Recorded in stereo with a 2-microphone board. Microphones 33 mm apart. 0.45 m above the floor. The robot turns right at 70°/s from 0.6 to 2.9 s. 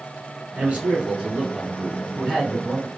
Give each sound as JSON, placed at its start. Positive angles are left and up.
{"t": 0.6, "sound": "a man speaking", "azimuth_deg": -85, "distance_m": 1.8}